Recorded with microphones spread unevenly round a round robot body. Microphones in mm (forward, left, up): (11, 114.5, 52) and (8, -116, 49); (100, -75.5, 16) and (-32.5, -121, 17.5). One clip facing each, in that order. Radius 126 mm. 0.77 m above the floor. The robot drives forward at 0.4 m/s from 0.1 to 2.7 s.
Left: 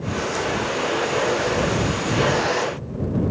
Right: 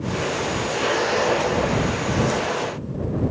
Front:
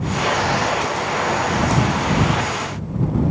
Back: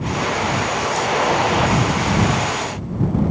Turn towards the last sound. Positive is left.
No sound to turn to.